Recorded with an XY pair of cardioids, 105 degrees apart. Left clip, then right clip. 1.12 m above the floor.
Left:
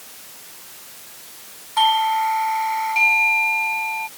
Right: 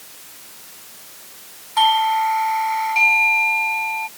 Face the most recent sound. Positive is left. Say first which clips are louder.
# right 1 dB
turn(degrees=-10)